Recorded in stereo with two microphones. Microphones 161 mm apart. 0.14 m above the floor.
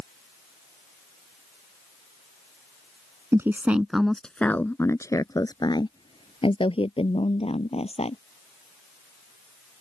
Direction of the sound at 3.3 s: 20° right (ahead or behind).